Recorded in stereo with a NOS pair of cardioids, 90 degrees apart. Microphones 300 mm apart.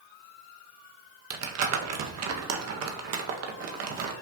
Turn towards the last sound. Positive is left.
turn(degrees=-55)